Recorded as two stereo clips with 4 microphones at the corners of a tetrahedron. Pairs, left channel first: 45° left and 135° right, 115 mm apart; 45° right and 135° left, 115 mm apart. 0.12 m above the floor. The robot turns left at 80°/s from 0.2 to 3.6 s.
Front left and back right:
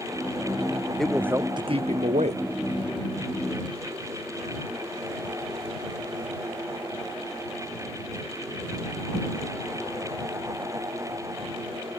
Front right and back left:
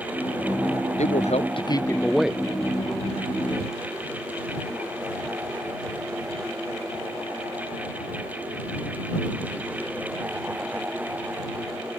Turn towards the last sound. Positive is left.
turn(degrees=110)